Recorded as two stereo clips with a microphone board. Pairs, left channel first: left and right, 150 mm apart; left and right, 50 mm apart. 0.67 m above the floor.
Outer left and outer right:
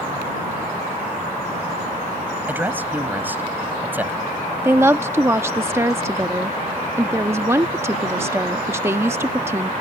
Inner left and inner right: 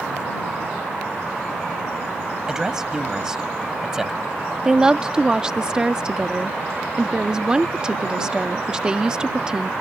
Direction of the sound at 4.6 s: 15° right (ahead or behind).